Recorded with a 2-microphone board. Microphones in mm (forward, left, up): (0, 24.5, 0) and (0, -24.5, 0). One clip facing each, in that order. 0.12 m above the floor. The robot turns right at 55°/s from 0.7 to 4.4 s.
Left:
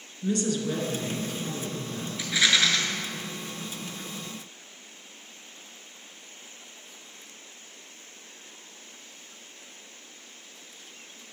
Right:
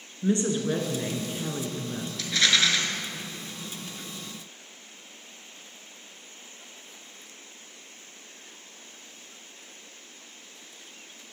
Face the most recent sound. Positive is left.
turn(degrees=-85)